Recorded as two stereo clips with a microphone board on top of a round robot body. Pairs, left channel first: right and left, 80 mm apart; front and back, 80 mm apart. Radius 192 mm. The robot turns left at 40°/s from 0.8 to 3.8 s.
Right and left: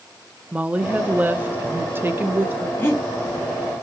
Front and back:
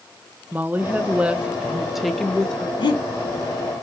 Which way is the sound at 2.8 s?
25° right.